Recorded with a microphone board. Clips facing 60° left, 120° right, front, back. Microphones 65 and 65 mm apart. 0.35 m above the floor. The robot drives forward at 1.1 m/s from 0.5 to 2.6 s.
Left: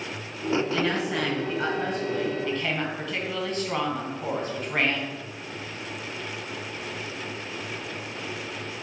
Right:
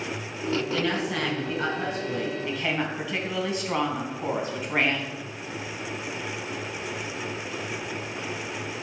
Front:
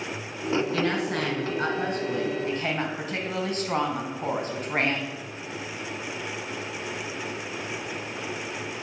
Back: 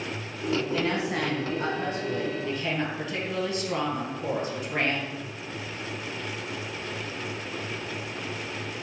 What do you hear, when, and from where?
0.7 s a woman speaking: 25° right, 5 m; by 5.2 s 40° right, 3 m